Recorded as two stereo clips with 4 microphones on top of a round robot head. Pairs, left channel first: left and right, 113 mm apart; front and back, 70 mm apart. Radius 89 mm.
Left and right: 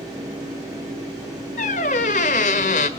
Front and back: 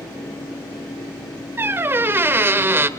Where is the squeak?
125° left, 1.2 m.